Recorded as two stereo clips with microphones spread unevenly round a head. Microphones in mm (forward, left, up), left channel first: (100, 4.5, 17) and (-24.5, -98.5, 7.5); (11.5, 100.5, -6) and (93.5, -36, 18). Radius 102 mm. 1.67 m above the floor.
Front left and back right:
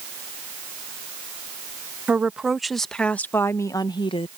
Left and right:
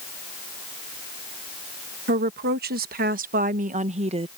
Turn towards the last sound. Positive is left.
turn(degrees=-10)